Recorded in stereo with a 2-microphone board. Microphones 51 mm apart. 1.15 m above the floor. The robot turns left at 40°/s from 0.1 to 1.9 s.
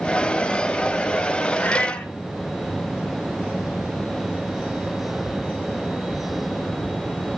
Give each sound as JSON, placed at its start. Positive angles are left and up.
{"t": 1.6, "sound": "a cat meowing", "side_deg": 40, "distance_m": 0.8}